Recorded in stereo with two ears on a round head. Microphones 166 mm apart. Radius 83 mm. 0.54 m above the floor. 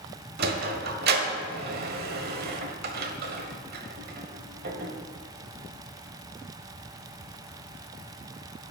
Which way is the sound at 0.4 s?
55° right (ahead or behind).